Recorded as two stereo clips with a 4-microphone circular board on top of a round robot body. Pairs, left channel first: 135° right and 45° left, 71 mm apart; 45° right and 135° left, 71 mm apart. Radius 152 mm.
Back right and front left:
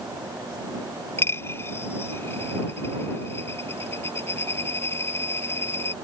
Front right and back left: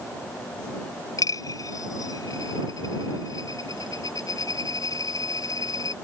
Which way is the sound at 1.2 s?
75° right.